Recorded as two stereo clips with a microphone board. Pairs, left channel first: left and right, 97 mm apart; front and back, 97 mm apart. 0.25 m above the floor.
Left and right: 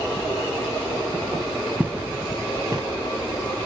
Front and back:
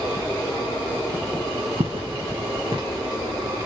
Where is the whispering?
No whispering in this recording.